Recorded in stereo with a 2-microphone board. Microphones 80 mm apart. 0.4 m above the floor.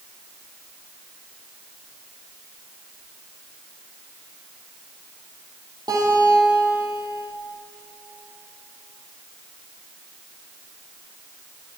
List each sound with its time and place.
5.9 s a guitar: 55° right (ahead or behind), 8.5 m